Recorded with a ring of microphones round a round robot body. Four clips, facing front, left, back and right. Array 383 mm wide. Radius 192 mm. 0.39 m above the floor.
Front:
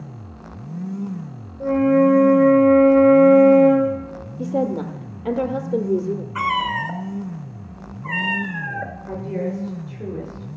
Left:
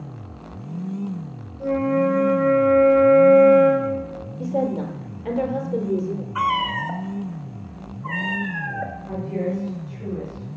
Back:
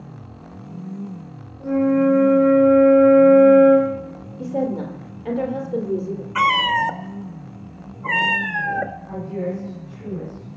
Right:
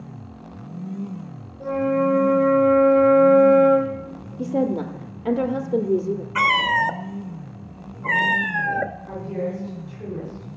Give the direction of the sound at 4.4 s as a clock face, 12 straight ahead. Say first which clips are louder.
Right 1 dB, front 1 dB; 1 o'clock.